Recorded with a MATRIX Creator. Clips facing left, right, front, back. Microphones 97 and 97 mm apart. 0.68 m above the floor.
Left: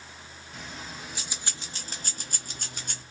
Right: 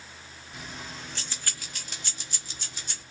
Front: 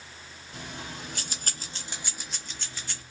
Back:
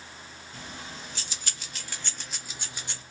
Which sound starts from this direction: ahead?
Keys jangling, at 0.5 s.